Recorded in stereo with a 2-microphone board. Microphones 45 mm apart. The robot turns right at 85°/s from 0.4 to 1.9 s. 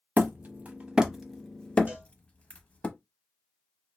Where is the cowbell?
30° right (ahead or behind), 2.5 m.